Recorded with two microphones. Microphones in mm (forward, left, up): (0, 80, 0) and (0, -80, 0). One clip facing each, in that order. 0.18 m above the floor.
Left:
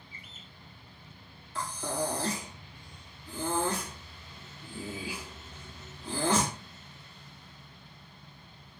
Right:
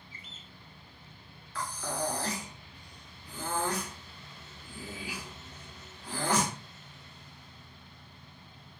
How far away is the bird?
About 0.6 m.